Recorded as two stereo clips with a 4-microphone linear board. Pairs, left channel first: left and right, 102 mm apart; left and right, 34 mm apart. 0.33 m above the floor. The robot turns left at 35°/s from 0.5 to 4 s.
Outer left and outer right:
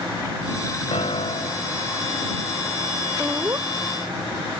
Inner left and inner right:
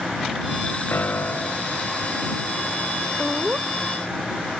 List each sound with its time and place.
0.9 s a piano: 80° left; by 1.8 s 45° left
3.2 s laughter: 15° right (ahead or behind); by 3.7 s 30° right (ahead or behind)